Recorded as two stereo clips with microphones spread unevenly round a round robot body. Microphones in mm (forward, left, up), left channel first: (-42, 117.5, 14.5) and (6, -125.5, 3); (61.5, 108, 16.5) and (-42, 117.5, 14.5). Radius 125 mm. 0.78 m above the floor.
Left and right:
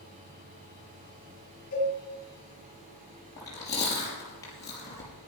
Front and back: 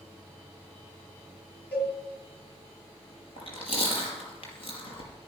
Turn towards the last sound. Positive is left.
turn(degrees=25)